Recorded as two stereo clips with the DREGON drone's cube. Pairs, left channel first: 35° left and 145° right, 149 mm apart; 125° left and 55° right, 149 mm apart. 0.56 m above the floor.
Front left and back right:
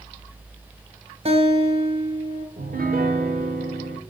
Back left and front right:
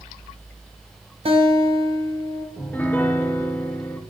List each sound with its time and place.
1.2 s a guitar: 100° right, 1.3 m
2.6 s a piano: 155° right, 0.8 m